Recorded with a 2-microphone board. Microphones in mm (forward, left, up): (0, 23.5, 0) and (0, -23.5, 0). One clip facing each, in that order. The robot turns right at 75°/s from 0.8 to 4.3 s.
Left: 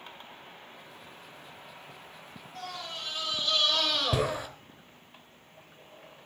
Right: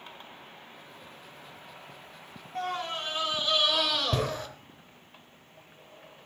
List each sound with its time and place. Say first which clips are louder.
2.5 s a scream: right 7 dB; 105° right, 1.1 m; by 4.5 s 25° left, 1.1 m